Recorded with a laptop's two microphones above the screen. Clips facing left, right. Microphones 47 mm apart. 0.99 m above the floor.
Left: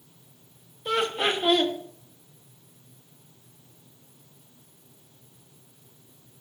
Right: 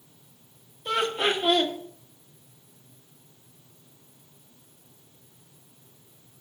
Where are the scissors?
I don't hear scissors.